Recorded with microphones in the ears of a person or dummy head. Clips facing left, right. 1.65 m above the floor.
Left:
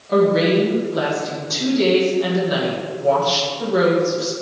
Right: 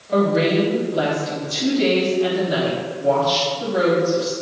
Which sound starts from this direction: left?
A woman speaking, at 0.1 s.